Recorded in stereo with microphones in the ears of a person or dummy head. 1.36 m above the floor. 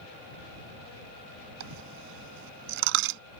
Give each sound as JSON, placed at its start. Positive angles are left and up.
{"t": 1.6, "sound": "a dropped coin", "side_deg": -65}